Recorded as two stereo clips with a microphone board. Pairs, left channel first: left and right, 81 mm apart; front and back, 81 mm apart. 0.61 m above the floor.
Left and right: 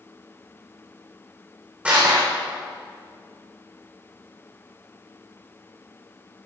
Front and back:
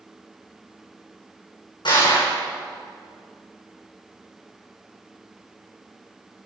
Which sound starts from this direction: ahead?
Crushing, at 1.9 s.